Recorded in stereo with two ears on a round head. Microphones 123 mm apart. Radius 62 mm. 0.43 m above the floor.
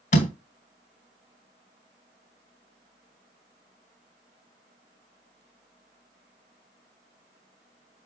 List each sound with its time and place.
0.1 s a door slam: 55° left (ahead or behind), 2 m